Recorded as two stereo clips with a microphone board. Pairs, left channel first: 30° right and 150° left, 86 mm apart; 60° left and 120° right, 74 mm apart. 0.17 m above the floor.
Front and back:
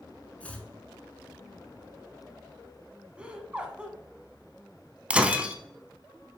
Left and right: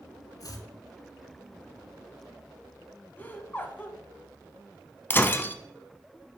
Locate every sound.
0.4 s chopping: 40° left, 0.9 m
3.2 s laughter: 90° left, 1.1 m
5.1 s breaking glass: 90° left, 0.5 m